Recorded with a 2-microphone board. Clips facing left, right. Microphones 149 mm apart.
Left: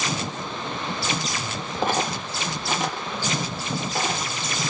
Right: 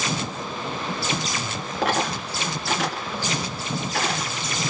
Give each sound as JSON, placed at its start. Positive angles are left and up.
{"t": 1.8, "sound": "a dropped coin", "side_deg": -85, "distance_m": 3.5}